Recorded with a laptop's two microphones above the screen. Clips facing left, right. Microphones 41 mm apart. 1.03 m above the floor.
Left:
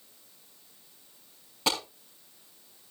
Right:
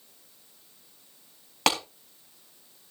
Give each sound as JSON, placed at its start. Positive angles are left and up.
{"t": 1.7, "sound": "a clap", "side_deg": -85, "distance_m": 5.0}